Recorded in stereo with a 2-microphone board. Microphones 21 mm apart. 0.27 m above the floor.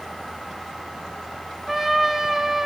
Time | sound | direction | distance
1.7 | a trumpet | 15° right (ahead or behind) | 1.7 m